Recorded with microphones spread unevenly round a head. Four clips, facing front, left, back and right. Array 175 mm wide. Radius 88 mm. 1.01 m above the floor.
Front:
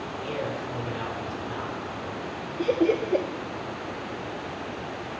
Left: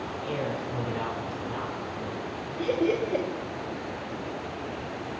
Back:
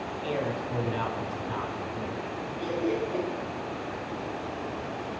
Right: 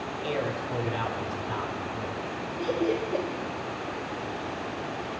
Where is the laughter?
10° left, 0.9 m.